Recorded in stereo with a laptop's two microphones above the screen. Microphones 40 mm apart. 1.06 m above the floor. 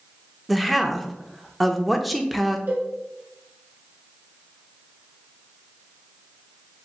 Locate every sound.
0.5 s a woman speaking: centre (ahead or behind), 0.7 m
2.7 s a cowbell: 80° right, 1.8 m